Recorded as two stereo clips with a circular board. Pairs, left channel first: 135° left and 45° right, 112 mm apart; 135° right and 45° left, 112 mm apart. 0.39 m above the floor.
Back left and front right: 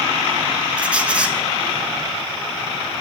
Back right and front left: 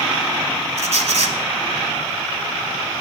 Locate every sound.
0.8 s a squeak: 35° left, 0.9 m